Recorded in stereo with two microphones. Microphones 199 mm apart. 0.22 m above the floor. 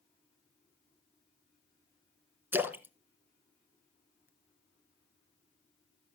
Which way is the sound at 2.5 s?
10° right (ahead or behind).